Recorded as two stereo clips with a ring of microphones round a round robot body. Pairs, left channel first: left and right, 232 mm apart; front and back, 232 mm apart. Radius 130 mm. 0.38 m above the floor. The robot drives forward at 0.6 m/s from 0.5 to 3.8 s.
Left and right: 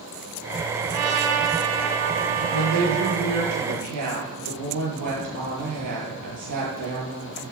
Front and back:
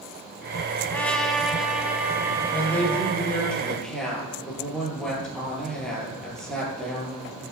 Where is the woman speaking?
80° right, 9.5 m; by 7.4 s 85° right, 9.5 m.